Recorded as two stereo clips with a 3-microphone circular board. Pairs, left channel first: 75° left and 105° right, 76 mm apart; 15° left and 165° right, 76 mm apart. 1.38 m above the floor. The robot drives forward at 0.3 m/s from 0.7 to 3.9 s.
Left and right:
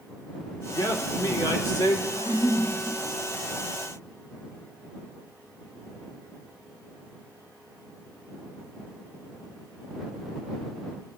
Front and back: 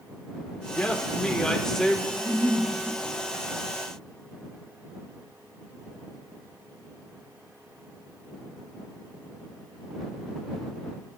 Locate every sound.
0.7 s a man speaking: 85° left, 1.4 m; by 2.0 s 100° left, 1.4 m
2.1 s a giggle: 160° left, 4.5 m; by 2.7 s 165° left, 5 m